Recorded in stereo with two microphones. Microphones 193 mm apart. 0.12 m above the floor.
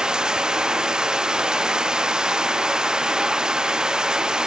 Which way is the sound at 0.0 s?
5° right (ahead or behind).